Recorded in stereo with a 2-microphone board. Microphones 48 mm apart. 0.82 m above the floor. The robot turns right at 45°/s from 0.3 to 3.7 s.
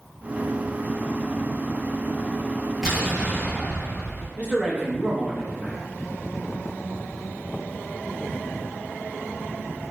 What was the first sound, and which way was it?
An explosion, 175° right.